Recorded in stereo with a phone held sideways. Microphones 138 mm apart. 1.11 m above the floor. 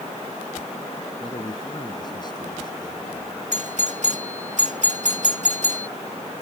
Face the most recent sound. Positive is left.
turn(degrees=-65)  # may be behind; listen again after turning